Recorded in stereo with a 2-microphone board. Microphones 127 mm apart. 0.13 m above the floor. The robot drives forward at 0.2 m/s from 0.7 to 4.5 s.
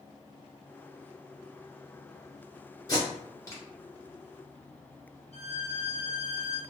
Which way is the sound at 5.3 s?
50° left (ahead or behind).